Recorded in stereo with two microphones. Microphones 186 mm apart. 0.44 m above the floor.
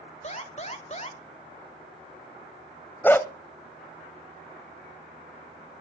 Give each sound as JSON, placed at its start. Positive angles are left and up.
{"t": 0.2, "sound": "an alarm", "side_deg": 40, "distance_m": 2.5}
{"t": 3.0, "sound": "a dog barking", "side_deg": 10, "distance_m": 0.9}